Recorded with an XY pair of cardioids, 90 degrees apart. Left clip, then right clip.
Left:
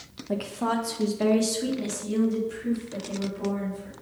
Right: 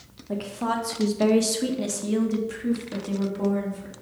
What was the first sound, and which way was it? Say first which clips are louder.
A woman speaking: even; 25° left.